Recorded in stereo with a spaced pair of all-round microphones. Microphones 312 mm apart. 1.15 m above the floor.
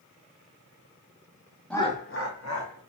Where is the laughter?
5° left (ahead or behind), 0.5 m; by 2.8 s 65° left (ahead or behind), 1.1 m.